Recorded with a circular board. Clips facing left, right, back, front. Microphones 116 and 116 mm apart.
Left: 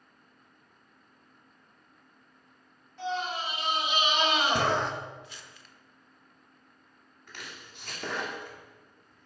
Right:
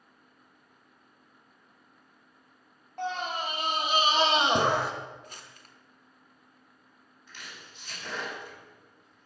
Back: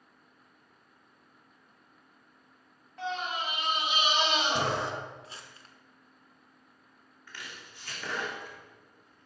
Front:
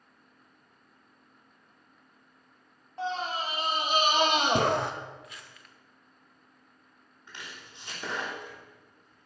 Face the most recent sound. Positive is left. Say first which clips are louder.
# left 2 dB, front 1 dB
turn(degrees=70)